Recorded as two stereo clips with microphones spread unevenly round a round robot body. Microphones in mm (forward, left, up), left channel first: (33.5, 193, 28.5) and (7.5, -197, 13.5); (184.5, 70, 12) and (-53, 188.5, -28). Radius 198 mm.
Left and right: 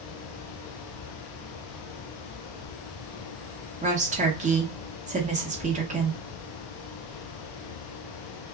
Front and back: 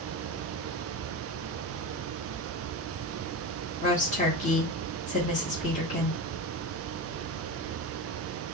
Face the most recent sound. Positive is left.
turn(degrees=-65)